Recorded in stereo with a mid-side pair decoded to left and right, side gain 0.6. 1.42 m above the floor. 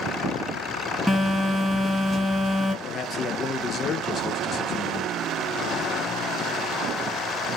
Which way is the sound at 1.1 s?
10° left.